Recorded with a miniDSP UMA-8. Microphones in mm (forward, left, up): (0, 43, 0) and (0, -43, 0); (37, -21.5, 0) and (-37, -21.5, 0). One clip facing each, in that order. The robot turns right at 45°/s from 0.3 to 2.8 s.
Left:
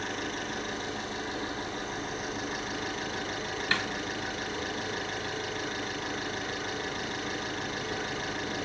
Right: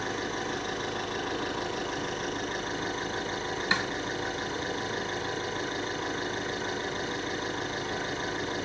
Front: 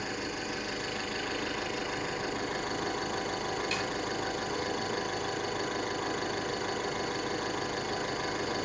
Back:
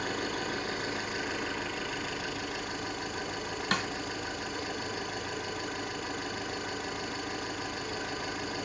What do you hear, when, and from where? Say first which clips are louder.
0.0 s an engine running: right 2 dB, back 2 dB; 140° right, 8 m; by 8.7 s 30° right, 8 m
3.7 s a snare drum: right 2 dB, back 2 dB; 160° right, 1.4 m